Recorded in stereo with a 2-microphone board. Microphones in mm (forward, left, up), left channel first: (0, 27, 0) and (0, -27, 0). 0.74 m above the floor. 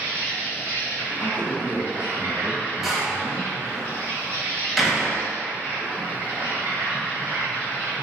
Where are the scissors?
No scissors in this recording.